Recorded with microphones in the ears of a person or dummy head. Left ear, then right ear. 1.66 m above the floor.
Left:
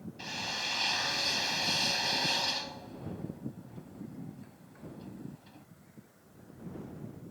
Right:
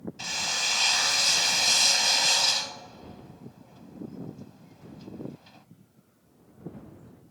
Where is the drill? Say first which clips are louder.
Right 7 dB; 45° right (ahead or behind).